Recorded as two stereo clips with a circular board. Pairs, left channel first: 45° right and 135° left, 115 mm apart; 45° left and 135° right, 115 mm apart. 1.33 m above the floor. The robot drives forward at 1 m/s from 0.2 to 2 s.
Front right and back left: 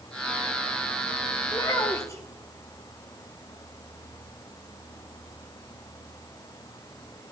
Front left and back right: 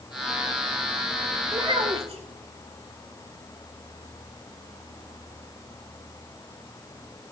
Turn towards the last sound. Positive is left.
turn(degrees=-110)